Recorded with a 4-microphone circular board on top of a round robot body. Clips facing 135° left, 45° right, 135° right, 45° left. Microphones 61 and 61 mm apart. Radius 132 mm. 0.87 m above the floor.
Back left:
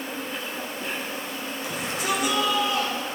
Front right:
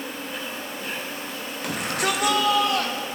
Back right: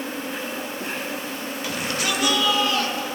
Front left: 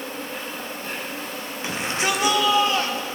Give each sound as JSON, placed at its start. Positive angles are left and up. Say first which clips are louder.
{"t": 0.0, "sound": "an insect", "louder": "even, back right 2 dB", "azimuth_deg": -130, "distance_m": 1.8}
{"t": 1.6, "sound": "a shout", "louder": "front right 3 dB, front left 2 dB", "azimuth_deg": -20, "distance_m": 1.2}